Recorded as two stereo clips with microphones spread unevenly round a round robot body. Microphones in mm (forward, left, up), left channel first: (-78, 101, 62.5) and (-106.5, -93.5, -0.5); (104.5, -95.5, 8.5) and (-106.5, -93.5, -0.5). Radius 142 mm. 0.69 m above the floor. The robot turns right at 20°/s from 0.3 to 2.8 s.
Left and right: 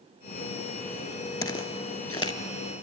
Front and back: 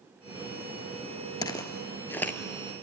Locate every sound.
1.4 s footsteps: 60° left, 0.8 m; by 2.4 s 75° left, 0.8 m